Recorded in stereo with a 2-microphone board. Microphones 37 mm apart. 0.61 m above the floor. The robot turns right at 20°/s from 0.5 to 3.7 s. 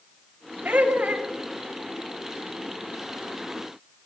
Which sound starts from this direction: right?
Laughter, at 0.7 s.